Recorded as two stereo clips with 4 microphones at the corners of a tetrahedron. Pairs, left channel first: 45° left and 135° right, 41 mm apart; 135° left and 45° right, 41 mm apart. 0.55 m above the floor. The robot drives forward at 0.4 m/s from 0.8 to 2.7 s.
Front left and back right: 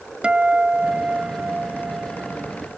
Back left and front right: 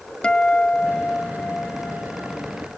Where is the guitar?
Straight behind.